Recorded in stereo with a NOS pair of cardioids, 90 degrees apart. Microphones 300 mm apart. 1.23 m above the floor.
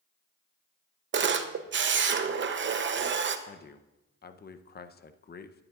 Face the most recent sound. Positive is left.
turn(degrees=30)